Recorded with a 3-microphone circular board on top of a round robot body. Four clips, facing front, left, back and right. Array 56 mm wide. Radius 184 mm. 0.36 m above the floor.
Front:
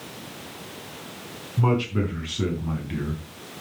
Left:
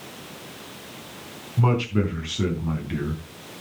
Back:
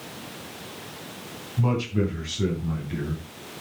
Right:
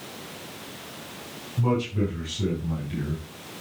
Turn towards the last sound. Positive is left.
turn(degrees=65)